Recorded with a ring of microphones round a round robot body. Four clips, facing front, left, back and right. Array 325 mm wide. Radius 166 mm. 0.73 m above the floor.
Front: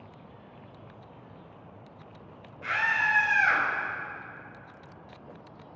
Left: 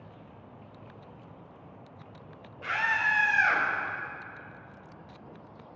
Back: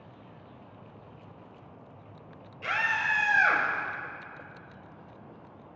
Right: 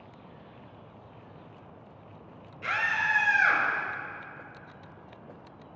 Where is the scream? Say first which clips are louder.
Even, front 2 dB; 140° right, 3.5 m; by 3.6 s 160° right, 4 m.